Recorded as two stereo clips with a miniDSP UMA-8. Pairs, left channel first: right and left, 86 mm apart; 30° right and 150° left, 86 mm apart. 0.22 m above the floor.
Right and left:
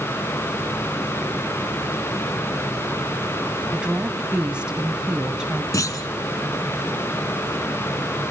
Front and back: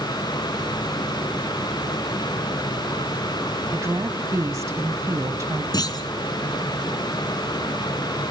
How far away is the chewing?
No chewing in this recording.